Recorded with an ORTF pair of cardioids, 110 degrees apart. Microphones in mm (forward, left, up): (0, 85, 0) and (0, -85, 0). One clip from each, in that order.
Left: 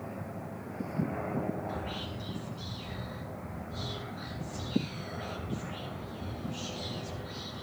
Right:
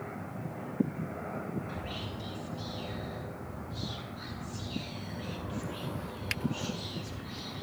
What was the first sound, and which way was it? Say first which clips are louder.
Whispering: left 2 dB; 5° right.